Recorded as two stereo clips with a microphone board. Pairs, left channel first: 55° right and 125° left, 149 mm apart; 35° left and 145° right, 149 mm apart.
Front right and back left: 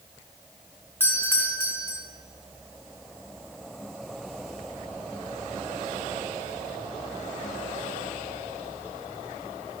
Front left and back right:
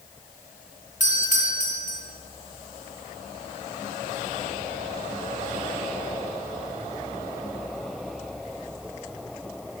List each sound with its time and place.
1.0 s a doorbell: 20° left, 4 m